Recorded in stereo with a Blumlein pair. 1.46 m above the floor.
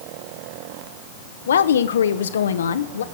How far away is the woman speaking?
About 1.1 m.